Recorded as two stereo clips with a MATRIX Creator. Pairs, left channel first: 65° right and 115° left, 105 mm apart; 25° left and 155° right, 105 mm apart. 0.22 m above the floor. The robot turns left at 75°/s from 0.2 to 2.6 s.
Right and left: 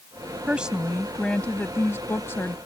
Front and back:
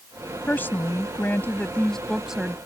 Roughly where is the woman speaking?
Ahead left.